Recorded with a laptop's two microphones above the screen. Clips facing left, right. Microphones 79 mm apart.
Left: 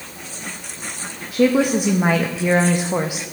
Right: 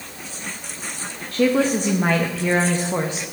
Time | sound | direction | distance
1.3 | a woman speaking | 10° left (ahead or behind) | 0.7 m